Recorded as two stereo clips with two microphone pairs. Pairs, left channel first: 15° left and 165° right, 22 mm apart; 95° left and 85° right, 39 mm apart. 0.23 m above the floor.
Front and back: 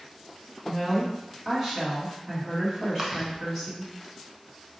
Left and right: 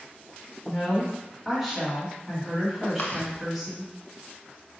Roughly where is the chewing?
Behind left.